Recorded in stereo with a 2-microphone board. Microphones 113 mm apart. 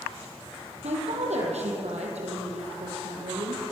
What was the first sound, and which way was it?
A woman speaking, 80° right.